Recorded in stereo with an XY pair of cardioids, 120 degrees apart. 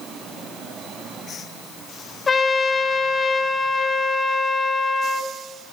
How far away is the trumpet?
About 0.8 m.